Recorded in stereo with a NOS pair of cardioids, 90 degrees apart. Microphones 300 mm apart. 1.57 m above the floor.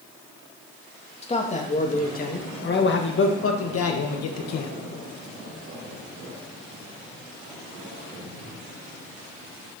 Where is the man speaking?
20° left, 2.5 m; by 4.7 s 65° left, 1.9 m.